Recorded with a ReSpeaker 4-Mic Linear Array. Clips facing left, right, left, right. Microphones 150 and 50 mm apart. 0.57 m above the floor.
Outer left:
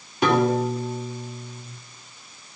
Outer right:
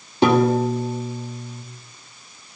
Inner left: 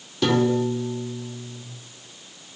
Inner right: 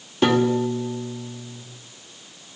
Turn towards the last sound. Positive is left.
turn(degrees=-30)  # may be behind; listen again after turning